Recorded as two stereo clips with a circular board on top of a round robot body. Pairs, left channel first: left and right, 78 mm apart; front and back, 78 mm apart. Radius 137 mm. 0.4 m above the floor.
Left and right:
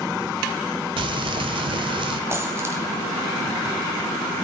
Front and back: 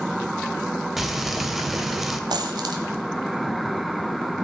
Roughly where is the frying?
Right.